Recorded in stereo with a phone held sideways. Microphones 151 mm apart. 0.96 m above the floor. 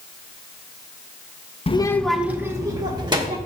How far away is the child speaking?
About 0.5 m.